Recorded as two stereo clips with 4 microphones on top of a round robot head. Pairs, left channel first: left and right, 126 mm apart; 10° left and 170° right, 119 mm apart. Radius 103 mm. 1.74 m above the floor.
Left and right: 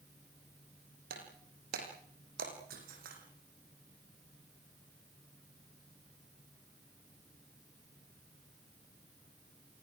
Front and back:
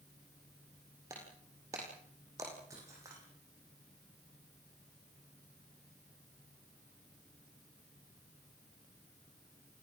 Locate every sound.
1.1 s breaking glass: 100° right, 5.5 m